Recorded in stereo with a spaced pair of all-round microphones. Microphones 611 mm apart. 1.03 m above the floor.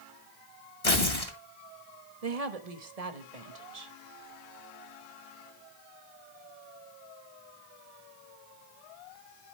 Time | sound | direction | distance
0.8 | tearing paper | 65° left (ahead or behind) | 2 m
2.2 | a woman speaking | 75° right (ahead or behind) | 1.5 m